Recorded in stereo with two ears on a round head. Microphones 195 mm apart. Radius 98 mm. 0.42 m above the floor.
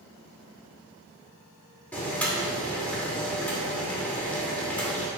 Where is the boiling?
5° left (ahead or behind), 0.8 m.